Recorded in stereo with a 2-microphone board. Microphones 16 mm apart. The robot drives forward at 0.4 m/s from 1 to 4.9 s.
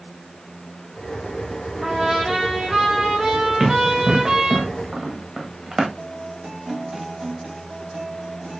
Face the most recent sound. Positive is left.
turn(degrees=-55)  # may be behind; listen again after turning